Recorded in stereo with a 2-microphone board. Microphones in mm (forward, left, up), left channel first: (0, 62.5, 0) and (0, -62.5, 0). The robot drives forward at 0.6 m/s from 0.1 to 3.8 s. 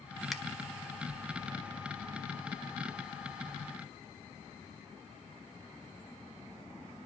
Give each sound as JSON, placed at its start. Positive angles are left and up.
{"t": 0.3, "sound": "a finger snap", "side_deg": 0, "distance_m": 1.2}